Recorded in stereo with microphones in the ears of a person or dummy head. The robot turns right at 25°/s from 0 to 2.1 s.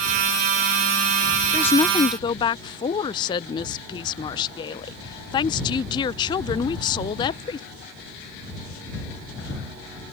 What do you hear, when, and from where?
1.5 s a woman speaking: 10° left (ahead or behind); by 7.7 s 20° left (ahead or behind)